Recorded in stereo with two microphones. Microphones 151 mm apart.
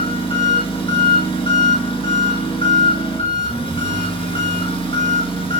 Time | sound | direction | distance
0.0 | an engine running | 40° left (ahead or behind) | 1.4 m